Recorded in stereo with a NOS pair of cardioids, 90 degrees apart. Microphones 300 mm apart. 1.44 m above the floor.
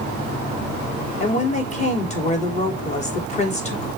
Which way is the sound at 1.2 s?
25° left.